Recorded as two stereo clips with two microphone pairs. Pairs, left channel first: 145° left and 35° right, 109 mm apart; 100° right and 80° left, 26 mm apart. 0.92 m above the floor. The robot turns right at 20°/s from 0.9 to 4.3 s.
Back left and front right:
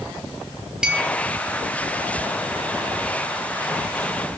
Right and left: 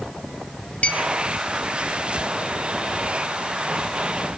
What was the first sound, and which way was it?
A clink, 120° right.